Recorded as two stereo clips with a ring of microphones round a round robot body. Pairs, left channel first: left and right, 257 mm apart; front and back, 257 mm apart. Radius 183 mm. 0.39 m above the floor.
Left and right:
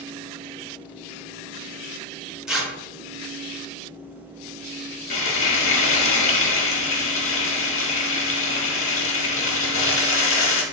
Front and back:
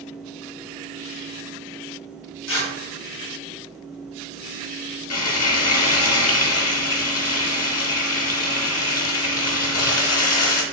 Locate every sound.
2.5 s tearing paper: 5° right, 0.8 m
5.1 s frying: 40° left, 0.7 m